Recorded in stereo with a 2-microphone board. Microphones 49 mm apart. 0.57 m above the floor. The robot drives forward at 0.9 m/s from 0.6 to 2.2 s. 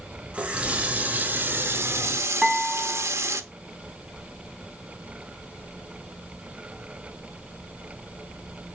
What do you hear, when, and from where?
0.3 s a running tap: 25° right (ahead or behind), 1.7 m; by 3.4 s 65° right (ahead or behind), 0.8 m
2.4 s dishes clattering: 20° right (ahead or behind), 3 m